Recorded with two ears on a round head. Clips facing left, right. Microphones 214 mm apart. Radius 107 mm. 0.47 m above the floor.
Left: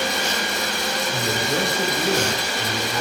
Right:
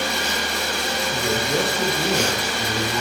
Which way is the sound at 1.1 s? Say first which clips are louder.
Right 3 dB; centre (ahead or behind).